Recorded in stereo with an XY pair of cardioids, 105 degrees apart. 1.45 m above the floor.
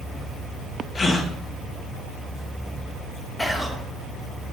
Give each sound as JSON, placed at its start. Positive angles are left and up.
{"t": 0.9, "sound": "a gasp", "azimuth_deg": 35, "distance_m": 1.0}
{"t": 3.4, "sound": "whispering", "azimuth_deg": 10, "distance_m": 1.3}